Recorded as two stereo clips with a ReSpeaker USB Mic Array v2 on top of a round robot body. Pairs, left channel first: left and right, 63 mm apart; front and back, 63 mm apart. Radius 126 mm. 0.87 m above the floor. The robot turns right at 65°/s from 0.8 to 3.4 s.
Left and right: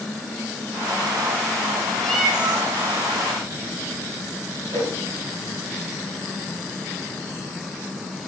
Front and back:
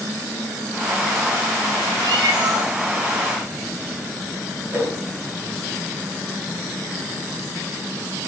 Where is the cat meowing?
170° left, 2 m; by 2.7 s 145° right, 2 m.